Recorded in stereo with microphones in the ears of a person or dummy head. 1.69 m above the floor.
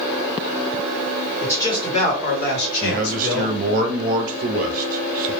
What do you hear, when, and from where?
1.4 s a man speaking: 10° left (ahead or behind), 1.0 m; by 3.6 s 90° left, 1.2 m
2.8 s a man speaking: 45° right (ahead or behind), 0.5 m